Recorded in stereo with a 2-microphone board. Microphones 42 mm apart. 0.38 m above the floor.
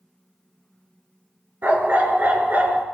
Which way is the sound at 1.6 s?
50° right (ahead or behind).